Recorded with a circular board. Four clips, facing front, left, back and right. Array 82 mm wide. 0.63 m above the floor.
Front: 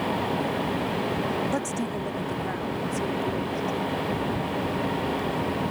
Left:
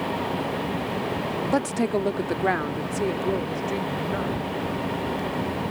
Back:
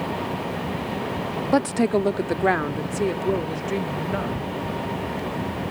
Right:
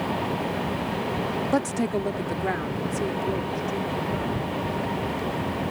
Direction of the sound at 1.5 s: 175° left.